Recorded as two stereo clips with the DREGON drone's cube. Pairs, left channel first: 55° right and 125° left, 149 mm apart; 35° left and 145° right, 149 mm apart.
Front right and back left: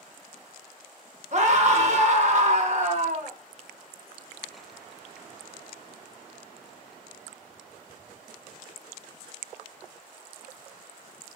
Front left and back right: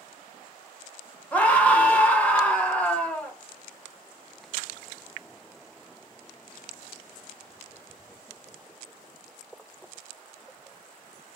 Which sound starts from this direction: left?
A scream, at 1.3 s.